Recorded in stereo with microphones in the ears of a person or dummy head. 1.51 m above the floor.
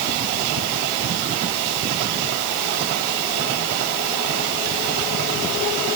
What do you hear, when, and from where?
Only background noise.